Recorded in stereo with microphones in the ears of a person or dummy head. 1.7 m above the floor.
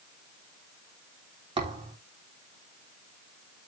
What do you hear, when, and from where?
1.6 s a thud: 25° right (ahead or behind), 3 m